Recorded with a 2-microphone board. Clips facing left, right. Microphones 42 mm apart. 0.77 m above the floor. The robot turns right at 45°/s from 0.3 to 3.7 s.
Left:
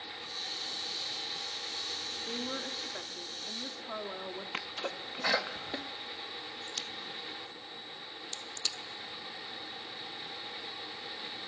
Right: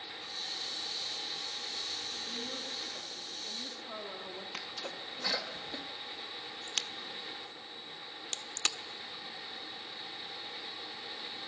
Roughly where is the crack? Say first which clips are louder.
Right 5 dB; right.